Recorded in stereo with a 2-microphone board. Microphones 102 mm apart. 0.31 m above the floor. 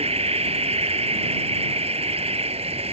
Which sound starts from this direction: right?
An insect, at 0.0 s.